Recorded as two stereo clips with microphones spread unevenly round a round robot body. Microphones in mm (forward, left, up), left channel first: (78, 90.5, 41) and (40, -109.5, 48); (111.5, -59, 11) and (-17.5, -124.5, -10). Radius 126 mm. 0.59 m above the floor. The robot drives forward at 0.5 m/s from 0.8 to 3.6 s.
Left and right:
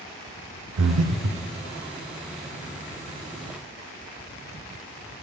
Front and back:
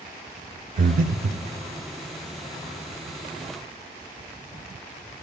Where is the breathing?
120° right, 0.6 m; by 1.5 s 140° right, 0.8 m.